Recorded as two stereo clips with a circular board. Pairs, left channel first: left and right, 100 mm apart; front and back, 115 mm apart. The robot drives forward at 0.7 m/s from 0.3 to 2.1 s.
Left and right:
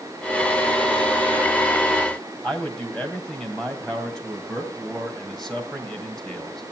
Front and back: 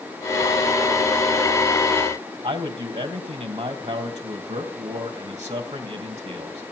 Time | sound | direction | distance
2.4 | a man speaking | 175° left | 3 m